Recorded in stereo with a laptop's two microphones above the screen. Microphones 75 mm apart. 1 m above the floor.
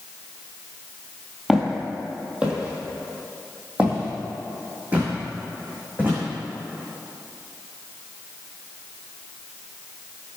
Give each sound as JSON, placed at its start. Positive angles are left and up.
{"t": 1.5, "sound": "footsteps", "side_deg": -5, "distance_m": 1.6}